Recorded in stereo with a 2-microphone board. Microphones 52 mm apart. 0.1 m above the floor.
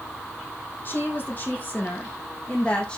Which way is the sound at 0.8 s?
40° left (ahead or behind).